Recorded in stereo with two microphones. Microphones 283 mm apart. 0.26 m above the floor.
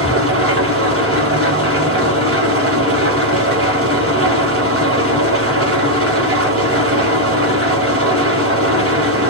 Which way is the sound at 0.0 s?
50° right (ahead or behind).